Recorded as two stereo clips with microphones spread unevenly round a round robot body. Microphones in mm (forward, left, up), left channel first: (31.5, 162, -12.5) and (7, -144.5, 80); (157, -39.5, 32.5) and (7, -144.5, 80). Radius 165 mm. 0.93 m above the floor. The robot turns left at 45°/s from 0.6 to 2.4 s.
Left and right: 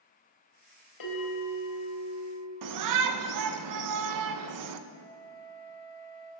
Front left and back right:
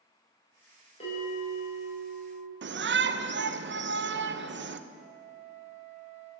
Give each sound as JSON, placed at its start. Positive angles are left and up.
{"t": 1.0, "sound": "a bell", "azimuth_deg": 105, "distance_m": 4.0}
{"t": 2.6, "sound": "a shout", "azimuth_deg": -125, "distance_m": 0.9}
{"t": 4.9, "sound": "a flute", "azimuth_deg": 5, "distance_m": 3.0}